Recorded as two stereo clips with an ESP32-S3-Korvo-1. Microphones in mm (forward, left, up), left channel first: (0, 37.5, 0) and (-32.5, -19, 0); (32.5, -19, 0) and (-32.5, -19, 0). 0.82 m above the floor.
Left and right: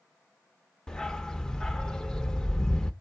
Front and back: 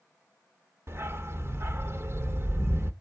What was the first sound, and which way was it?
A dog barking, 135° left.